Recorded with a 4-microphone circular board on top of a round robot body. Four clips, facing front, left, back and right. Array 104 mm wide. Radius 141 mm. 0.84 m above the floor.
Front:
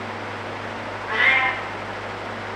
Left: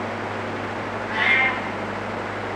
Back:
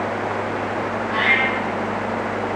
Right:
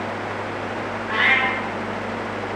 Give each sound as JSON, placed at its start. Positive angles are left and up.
{"t": 1.1, "sound": "a cat meowing", "azimuth_deg": -35, "distance_m": 1.3}